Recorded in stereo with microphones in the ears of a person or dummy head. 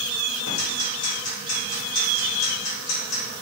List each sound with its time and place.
0.5 s ticking: 85° left, 3.5 m